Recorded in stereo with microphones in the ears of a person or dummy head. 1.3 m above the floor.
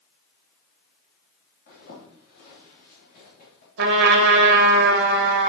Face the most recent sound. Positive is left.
turn(degrees=-60)  # may be behind; listen again after turning